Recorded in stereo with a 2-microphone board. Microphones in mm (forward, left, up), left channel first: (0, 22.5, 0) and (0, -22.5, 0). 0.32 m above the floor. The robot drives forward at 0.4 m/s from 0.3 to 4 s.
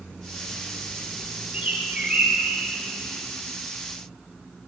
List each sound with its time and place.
1.5 s a bird: 25° right (ahead or behind), 1.0 m; by 2.6 s 20° right (ahead or behind), 1.3 m